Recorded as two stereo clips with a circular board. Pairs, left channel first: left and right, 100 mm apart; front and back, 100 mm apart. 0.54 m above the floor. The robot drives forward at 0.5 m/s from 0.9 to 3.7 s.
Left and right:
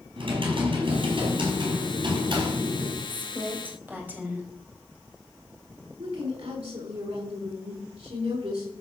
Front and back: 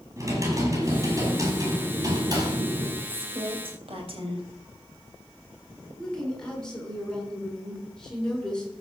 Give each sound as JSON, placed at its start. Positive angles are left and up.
{"t": 0.2, "sound": "typing on a keyboard", "azimuth_deg": -120, "distance_m": 4.5}
{"t": 3.1, "sound": "a woman speaking", "azimuth_deg": -160, "distance_m": 3.5}
{"t": 6.0, "sound": "a woman speaking", "azimuth_deg": -80, "distance_m": 5.5}